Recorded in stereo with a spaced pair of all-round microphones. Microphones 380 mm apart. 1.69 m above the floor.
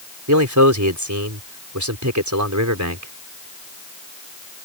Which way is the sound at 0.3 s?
50° right (ahead or behind).